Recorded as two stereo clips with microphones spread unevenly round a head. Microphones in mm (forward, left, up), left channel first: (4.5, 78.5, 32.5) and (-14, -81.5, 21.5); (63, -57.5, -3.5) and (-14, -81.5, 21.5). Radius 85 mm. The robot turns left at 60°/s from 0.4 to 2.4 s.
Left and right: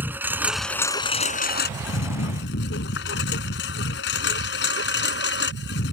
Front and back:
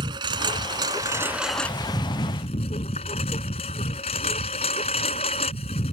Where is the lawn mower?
175° right; by 5.9 s 65° left.